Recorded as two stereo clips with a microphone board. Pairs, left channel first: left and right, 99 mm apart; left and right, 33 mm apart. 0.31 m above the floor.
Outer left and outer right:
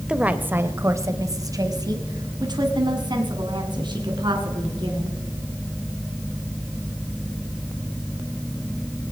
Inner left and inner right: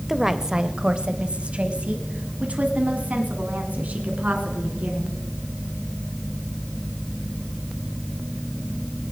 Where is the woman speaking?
10° right (ahead or behind), 0.9 m; by 5.2 s 50° right (ahead or behind), 3.5 m.